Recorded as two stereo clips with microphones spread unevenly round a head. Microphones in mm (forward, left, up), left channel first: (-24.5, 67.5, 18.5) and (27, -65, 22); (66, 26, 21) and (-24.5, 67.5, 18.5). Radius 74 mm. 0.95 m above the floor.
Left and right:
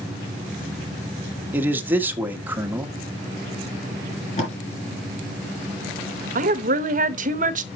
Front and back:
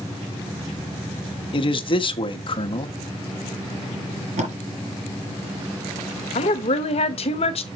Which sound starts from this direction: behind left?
Tape being pulled, at 4.4 s.